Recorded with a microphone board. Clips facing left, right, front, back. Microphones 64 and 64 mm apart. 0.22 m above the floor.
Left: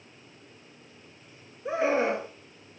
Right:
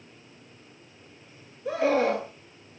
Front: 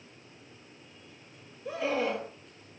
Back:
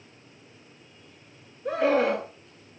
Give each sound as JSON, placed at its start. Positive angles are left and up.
{"t": 1.6, "sound": "a scream", "azimuth_deg": 155, "distance_m": 4.0}